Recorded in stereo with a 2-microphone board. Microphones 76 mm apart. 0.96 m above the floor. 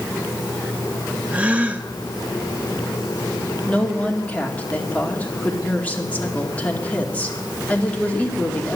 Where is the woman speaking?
15° left (ahead or behind), 2 m.